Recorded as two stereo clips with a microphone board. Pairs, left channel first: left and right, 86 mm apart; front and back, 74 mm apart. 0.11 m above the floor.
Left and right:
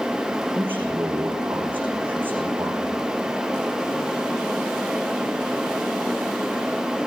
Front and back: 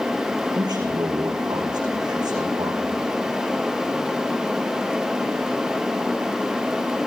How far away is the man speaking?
About 6.5 m.